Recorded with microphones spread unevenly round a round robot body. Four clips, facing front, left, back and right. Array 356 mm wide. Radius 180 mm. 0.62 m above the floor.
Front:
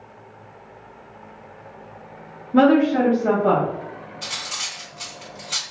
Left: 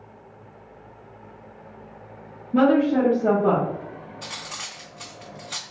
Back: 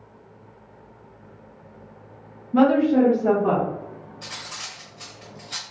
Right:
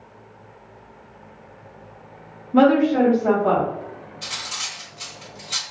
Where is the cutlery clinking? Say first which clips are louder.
Right 2 dB, front 4 dB; 60° left, 0.9 m.